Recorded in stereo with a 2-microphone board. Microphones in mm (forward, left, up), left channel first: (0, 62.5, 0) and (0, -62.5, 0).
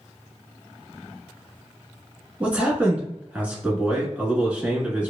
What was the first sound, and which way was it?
A man speaking, 10° right (ahead or behind).